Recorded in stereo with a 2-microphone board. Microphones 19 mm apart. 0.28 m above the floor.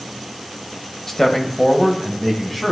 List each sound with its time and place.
1.1 s a man speaking: 25° left (ahead or behind), 1.2 m